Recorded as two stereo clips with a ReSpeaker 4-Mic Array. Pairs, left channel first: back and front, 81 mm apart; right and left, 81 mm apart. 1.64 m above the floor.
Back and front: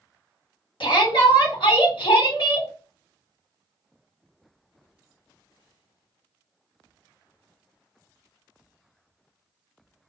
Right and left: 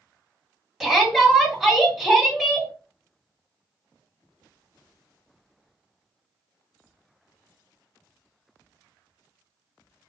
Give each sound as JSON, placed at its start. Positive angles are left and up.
{"t": 0.8, "sound": "a shout", "azimuth_deg": 180, "distance_m": 1.7}